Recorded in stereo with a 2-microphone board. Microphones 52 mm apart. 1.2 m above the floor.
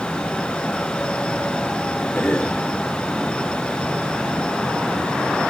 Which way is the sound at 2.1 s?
20° left (ahead or behind).